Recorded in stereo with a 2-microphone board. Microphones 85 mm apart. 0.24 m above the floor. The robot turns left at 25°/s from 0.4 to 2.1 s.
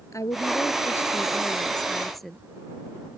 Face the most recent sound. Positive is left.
turn(degrees=0)